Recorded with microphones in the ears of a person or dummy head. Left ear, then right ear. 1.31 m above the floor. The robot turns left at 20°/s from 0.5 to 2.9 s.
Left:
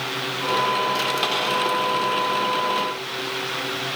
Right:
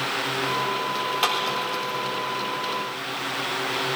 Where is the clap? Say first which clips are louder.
Left 1 dB; 25° right (ahead or behind), 4 m; by 1.5 s 20° right (ahead or behind), 4 m.